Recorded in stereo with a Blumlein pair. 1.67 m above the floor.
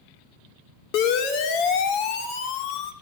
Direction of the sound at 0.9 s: 45° left.